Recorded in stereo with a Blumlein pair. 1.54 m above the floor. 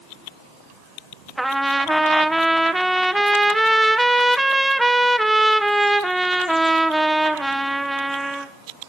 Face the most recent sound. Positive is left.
turn(degrees=-5)